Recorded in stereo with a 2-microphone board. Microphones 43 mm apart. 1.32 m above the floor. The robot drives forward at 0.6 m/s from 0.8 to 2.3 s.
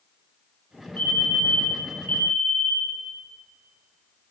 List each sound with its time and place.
1.0 s a fire alarm: 45° left (ahead or behind), 8.5 m; by 3.0 s 50° left (ahead or behind), 8 m